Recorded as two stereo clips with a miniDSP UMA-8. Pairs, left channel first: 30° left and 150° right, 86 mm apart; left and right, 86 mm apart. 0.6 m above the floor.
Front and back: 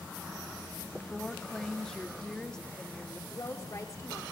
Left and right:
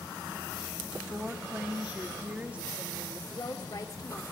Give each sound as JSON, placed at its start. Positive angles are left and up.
{"t": 1.1, "sound": "a woman speaking", "azimuth_deg": -40, "distance_m": 0.9}
{"t": 3.3, "sound": "a woman speaking", "azimuth_deg": 70, "distance_m": 1.5}